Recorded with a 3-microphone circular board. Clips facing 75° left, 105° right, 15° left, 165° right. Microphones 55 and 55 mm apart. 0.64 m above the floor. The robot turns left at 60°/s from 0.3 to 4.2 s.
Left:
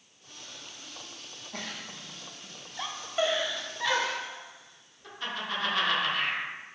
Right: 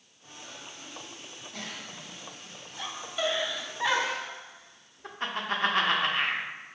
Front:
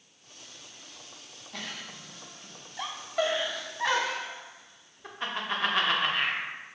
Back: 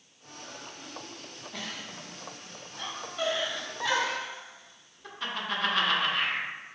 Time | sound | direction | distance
1.5 | a giggle | 110° left | 0.5 m